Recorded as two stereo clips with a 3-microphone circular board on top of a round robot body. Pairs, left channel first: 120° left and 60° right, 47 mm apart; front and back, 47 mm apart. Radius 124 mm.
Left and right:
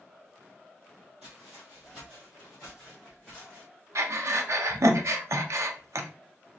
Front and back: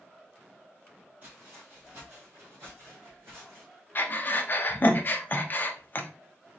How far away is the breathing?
About 0.7 m.